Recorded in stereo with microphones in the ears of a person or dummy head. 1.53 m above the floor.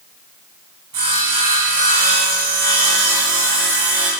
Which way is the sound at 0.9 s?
25° right (ahead or behind).